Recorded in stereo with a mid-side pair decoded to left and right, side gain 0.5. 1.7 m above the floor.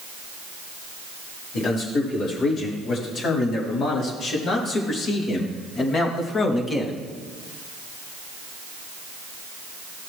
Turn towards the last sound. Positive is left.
turn(degrees=30)